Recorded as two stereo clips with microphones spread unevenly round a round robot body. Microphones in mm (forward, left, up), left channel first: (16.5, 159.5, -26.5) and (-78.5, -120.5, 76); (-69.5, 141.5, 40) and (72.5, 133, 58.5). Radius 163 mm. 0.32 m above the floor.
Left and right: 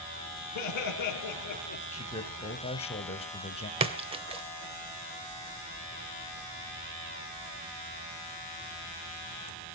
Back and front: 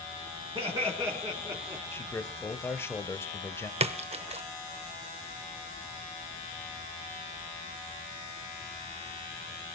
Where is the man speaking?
115° left, 1.8 m.